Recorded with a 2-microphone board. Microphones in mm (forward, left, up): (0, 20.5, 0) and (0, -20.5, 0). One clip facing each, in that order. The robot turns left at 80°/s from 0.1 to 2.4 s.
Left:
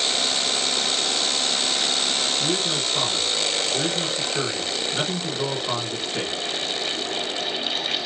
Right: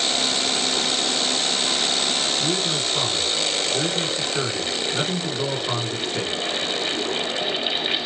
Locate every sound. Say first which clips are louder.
2.4 s a man speaking: right 1 dB; 5° right (ahead or behind), 1.3 m